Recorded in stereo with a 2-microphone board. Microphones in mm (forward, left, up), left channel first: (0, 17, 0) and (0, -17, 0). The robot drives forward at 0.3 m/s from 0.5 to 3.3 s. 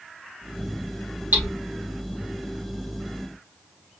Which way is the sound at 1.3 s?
75° right (ahead or behind).